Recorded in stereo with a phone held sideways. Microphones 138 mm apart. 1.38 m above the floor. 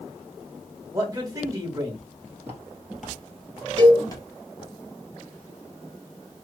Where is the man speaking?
25° right (ahead or behind), 1.9 m.